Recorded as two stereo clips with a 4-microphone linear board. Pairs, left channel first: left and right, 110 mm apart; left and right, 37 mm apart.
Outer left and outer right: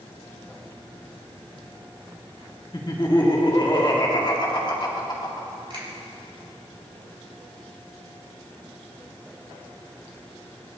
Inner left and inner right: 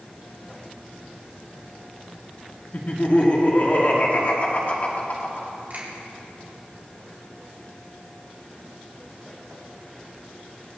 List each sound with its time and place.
2.7 s laughter: 45° left (ahead or behind), 1.8 m
5.7 s a finger snap: 55° right (ahead or behind), 3.5 m